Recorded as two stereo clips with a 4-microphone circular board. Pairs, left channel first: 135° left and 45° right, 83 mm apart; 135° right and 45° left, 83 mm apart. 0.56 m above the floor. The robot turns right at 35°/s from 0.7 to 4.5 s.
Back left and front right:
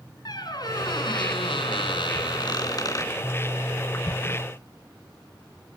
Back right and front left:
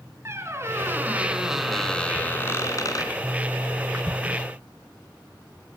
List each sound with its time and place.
0.2 s a squeak: 100° left, 3 m; by 3.1 s 175° right, 3 m